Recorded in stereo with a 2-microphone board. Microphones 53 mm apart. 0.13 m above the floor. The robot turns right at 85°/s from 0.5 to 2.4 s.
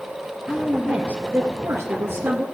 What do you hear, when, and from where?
0.5 s a woman speaking: 170° left, 2 m; by 2.5 s 30° right, 2 m